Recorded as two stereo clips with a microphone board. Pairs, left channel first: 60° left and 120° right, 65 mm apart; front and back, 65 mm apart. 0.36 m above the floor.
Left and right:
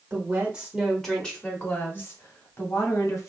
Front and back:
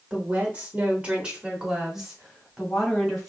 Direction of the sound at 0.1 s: 140° right.